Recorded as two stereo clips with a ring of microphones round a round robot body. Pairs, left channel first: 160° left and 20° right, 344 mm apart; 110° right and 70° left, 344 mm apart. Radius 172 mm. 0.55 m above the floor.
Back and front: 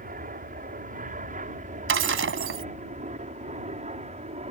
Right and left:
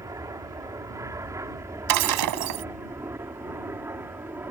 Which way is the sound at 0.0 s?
Straight ahead.